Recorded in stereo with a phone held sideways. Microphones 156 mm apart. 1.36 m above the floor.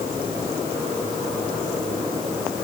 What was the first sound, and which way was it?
Only background noise.